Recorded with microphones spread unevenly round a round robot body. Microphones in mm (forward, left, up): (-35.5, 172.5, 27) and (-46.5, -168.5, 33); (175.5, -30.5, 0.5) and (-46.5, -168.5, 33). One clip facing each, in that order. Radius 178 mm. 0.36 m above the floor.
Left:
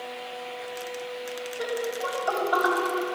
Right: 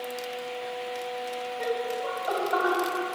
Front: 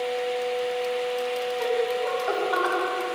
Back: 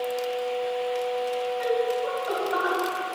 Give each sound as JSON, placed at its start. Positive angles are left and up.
{"t": 1.6, "sound": "laughter", "azimuth_deg": 45, "distance_m": 3.0}